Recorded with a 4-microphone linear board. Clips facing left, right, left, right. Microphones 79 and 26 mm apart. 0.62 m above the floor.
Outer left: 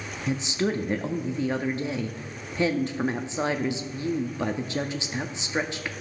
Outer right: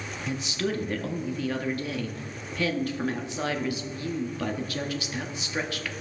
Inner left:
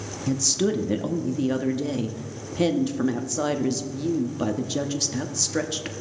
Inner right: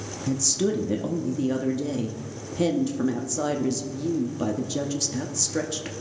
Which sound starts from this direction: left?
A woman speaking, at 0.3 s.